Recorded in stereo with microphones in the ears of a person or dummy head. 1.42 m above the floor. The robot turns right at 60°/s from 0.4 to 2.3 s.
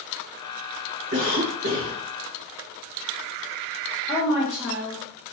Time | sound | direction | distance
1.1 | a cough | 125° right | 1.5 m
4.1 | a woman speaking | 10° right (ahead or behind) | 1.1 m